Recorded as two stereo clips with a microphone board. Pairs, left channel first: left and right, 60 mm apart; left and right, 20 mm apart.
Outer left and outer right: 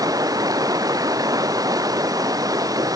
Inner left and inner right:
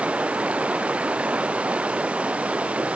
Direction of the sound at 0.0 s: 80° right.